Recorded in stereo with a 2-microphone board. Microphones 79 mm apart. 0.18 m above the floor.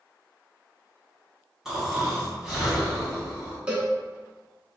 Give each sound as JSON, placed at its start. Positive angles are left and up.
{"t": 1.6, "sound": "snoring", "side_deg": -5, "distance_m": 1.3}
{"t": 3.7, "sound": "a cowbell", "side_deg": -15, "distance_m": 0.9}